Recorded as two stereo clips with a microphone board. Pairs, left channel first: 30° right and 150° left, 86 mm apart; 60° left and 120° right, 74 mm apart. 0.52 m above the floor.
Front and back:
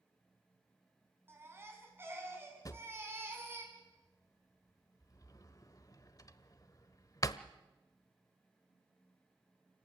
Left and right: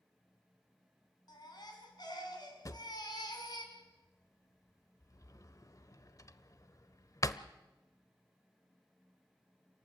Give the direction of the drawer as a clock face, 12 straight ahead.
11 o'clock.